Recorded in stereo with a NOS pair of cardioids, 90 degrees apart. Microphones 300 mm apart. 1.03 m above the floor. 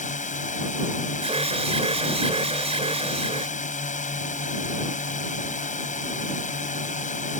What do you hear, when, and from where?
0.0 s a drone: 25° left
1.2 s an alarm: 20° right